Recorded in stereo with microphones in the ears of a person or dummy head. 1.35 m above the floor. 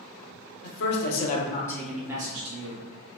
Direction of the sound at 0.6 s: 70° left (ahead or behind).